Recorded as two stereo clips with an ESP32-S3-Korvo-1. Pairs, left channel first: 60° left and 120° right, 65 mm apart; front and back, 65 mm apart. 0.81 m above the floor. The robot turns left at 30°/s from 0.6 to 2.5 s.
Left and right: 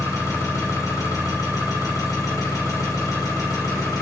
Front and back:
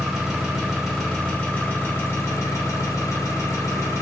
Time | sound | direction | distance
0.0 | an engine running | 95° left | 1.3 m